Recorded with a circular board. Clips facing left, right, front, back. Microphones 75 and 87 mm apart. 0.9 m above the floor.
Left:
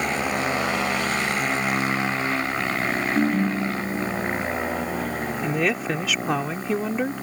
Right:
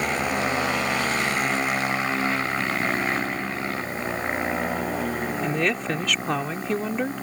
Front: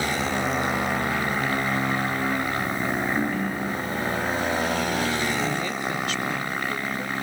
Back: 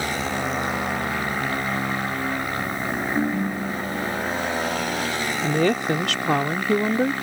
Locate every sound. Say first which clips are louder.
3.1 s a ringtone: left 6 dB, back 2 dB; 115° left
5.4 s a woman speaking: left 2 dB, back 6 dB; 175° left